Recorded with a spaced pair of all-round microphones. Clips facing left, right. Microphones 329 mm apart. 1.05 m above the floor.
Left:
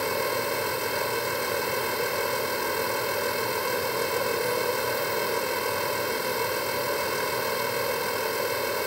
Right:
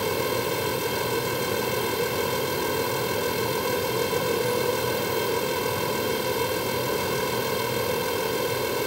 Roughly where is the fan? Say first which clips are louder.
Right 3 dB; right.